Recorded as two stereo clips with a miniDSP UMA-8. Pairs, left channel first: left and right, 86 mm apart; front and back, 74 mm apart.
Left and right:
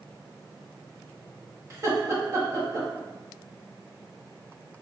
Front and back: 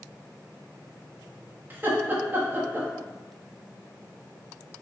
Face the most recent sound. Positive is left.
turn(degrees=-125)